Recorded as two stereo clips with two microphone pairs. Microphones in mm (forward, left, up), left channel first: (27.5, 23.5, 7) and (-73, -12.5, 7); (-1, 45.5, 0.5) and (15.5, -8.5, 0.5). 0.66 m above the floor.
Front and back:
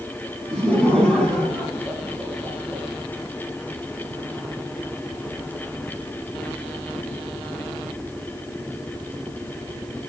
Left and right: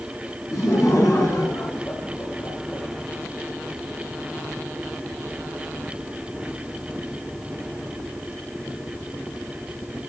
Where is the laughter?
105° left, 6.5 m.